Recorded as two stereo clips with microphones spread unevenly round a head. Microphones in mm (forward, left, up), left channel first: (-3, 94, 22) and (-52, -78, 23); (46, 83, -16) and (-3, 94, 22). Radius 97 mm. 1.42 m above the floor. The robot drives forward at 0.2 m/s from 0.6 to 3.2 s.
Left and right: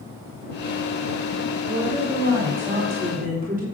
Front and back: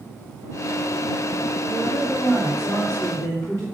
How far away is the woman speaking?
About 2.5 m.